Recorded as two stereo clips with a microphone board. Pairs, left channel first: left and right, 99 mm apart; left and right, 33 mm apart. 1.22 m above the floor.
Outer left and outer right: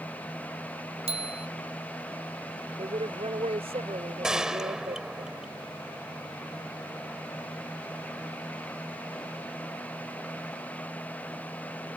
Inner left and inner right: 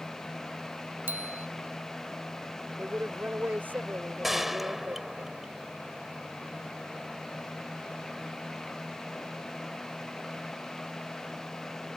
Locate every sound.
1.1 s a bicycle bell: 85° right
2.8 s a woman speaking: 80° right
4.2 s a gunshot: 5° right (ahead or behind)